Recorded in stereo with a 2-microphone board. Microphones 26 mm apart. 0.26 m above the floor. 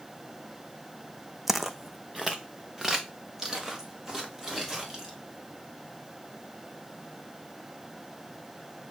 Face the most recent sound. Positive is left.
turn(degrees=-10)  # may be behind; listen again after turning